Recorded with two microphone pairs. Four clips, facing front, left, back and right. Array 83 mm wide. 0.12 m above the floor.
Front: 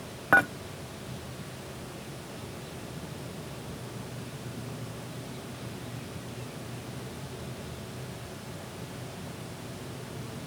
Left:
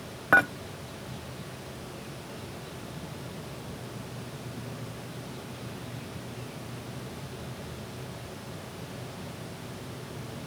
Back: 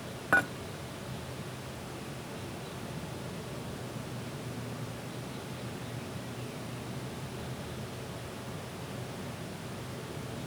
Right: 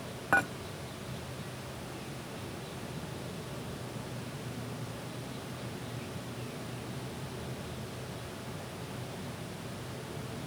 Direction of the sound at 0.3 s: 65° left.